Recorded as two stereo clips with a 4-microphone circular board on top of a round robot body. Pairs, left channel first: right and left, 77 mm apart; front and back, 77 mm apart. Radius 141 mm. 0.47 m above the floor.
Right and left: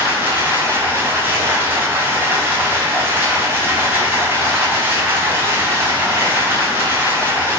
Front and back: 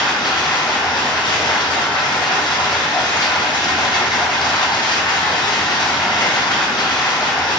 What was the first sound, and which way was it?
Running water, 25° left.